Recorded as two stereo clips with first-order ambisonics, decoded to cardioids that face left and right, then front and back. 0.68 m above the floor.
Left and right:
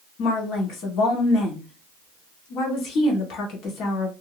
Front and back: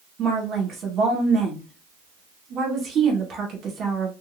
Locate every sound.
0.2 s a woman speaking: 120° left, 1.8 m